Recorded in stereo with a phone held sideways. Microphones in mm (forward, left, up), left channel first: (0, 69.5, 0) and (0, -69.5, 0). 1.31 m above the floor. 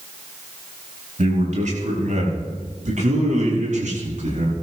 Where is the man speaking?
65° right (ahead or behind), 5.5 m; by 4.6 s 70° right (ahead or behind), 7 m.